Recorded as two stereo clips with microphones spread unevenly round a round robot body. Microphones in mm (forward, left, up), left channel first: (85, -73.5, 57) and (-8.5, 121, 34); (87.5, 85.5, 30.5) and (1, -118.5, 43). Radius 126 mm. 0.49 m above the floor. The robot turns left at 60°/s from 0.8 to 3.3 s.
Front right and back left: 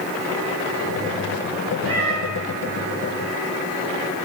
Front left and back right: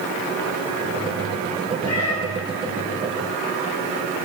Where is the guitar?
No guitar in this recording.